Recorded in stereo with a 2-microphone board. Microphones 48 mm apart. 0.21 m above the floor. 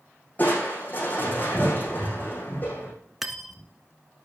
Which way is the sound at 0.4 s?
35° left (ahead or behind).